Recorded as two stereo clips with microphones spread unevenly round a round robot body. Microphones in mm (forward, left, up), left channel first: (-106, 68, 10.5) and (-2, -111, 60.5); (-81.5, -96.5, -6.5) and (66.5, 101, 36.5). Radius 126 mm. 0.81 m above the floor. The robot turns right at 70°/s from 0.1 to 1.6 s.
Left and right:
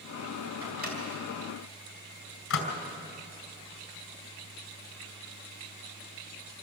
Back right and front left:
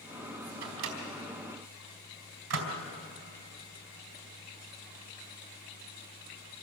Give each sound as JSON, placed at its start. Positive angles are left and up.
{"t": 0.6, "sound": "a microwave", "azimuth_deg": 10, "distance_m": 4.0}